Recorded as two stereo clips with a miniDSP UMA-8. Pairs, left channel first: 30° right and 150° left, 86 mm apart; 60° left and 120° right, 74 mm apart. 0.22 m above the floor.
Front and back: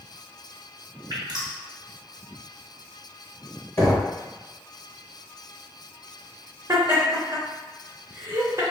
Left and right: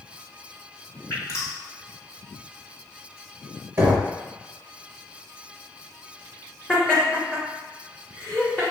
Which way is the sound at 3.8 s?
75° right.